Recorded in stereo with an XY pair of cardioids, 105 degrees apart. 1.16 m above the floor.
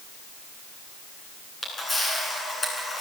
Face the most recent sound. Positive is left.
turn(degrees=30)